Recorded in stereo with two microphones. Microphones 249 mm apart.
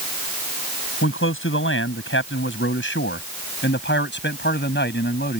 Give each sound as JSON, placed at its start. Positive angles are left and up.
{"t": 1.0, "sound": "a man speaking", "side_deg": 55}